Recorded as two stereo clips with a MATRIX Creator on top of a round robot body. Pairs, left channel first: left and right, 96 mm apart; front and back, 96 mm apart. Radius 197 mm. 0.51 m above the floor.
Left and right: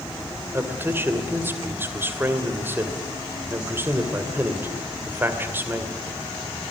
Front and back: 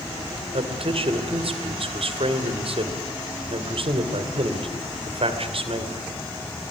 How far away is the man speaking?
About 2.5 m.